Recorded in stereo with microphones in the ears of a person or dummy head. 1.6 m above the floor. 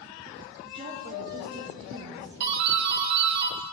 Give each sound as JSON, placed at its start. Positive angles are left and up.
{"t": 0.6, "sound": "a woman speaking", "side_deg": -30, "distance_m": 0.8}
{"t": 2.4, "sound": "a doorbell", "side_deg": -60, "distance_m": 1.1}